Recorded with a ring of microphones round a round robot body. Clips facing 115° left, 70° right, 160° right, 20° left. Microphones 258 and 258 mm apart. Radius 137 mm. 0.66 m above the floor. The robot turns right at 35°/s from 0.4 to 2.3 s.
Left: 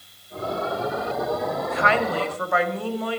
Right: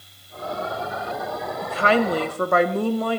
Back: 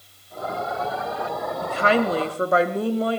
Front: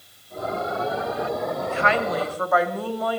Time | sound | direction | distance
1.6 | a woman speaking | 125° right | 1.2 m